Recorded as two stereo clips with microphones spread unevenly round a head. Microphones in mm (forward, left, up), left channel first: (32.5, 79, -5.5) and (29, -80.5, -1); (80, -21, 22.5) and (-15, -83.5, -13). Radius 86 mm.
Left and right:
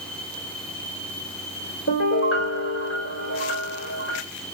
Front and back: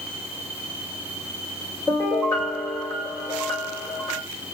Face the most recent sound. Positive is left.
turn(degrees=110)